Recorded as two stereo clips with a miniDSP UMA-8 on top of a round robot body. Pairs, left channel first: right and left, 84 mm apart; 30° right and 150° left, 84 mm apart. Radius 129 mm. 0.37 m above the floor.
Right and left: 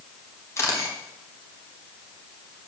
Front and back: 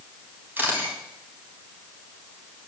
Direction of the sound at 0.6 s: 145° right.